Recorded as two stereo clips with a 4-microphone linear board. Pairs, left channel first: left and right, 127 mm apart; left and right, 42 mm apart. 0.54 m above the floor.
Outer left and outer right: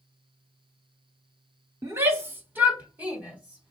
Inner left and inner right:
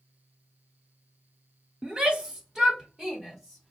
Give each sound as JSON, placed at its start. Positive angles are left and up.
{"t": 1.8, "sound": "a shout", "side_deg": -20, "distance_m": 1.7}